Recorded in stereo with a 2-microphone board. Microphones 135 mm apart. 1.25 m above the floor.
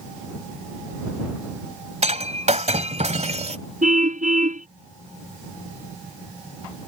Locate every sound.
2.0 s breaking glass: 55° right (ahead or behind)
3.8 s a car horn: 70° right (ahead or behind)